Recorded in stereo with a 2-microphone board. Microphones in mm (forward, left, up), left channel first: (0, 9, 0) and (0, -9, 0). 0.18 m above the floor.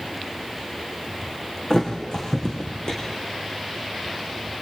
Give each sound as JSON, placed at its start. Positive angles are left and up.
{"t": 1.7, "sound": "a thud", "side_deg": 40, "distance_m": 6.5}